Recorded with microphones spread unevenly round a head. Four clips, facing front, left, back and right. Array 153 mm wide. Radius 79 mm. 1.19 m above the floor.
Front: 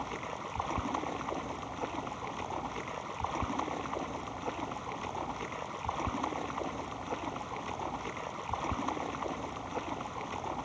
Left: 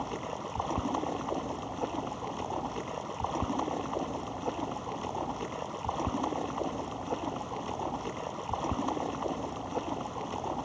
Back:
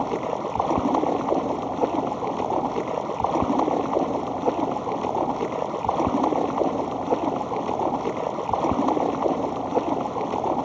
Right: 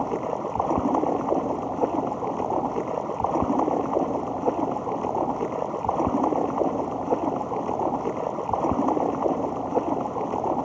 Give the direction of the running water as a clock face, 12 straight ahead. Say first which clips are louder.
Right 10 dB, back 14 dB; 5 o'clock.